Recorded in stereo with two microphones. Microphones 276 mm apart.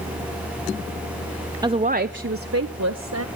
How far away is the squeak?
No squeak in this recording.